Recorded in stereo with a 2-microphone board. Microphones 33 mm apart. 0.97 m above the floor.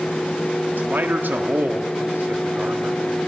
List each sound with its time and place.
0.8 s a man speaking: 75° right (ahead or behind), 1.7 m